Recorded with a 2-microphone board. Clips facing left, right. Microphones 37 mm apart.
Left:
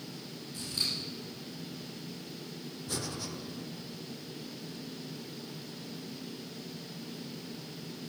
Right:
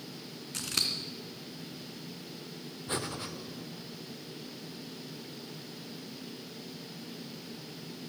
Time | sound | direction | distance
0.5 | scissors | 85° right | 1.9 m
2.9 | breathing | 35° right (ahead or behind) | 1.2 m